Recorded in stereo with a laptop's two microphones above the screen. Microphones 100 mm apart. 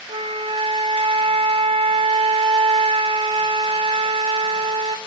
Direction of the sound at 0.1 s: 65° right (ahead or behind).